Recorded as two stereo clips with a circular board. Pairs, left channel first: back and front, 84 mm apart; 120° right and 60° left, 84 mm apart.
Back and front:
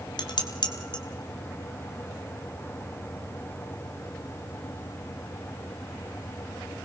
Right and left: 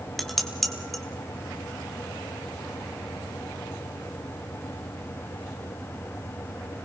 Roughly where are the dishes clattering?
Behind left.